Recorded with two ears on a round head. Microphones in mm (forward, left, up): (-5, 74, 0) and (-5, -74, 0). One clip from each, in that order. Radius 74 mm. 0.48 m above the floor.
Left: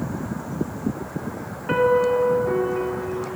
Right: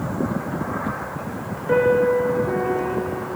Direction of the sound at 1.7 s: 60° left (ahead or behind).